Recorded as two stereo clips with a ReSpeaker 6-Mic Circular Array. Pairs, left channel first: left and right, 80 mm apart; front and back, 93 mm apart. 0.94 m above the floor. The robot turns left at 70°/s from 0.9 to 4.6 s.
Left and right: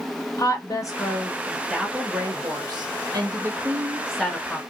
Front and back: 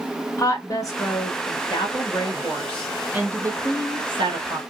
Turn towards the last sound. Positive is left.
turn(degrees=150)